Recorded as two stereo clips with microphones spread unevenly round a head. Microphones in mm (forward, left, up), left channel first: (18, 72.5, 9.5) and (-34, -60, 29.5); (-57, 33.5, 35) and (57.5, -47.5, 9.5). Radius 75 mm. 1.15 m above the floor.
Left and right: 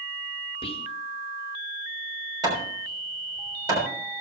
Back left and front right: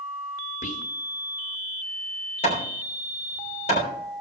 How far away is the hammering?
About 3.5 m.